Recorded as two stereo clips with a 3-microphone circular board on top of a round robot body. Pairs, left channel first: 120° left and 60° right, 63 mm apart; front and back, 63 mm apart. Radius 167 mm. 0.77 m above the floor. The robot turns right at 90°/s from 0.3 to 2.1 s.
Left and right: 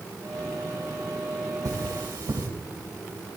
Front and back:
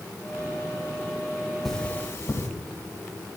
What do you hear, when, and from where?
1.6 s cutlery clinking: 85° right, 2 m; by 2.5 s 45° right, 2 m